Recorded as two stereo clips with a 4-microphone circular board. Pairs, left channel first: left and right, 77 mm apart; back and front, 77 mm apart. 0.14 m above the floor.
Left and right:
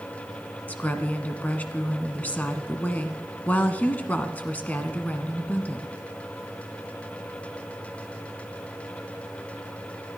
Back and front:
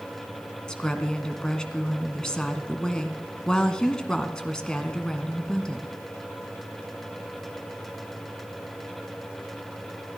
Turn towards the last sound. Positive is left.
turn(degrees=115)